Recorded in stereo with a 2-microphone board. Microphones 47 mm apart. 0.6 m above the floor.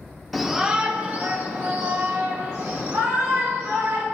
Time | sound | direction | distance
0.3 | a shout | centre (ahead or behind) | 1.2 m